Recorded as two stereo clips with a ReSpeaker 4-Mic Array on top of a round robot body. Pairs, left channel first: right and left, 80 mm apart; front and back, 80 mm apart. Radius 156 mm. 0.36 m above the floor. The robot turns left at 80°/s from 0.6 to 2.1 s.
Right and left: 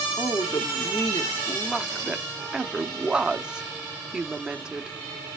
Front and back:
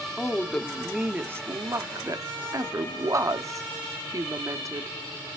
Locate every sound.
0.2 s a woman speaking: 75° right, 1.1 m; by 5.0 s 165° left, 1.1 m